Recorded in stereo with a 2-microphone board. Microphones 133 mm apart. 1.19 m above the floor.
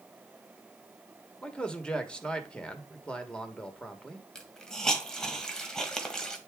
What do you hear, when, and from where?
1.4 s a man speaking: 5° left (ahead or behind), 1.4 m
4.3 s a hiss: 5° left (ahead or behind), 1.5 m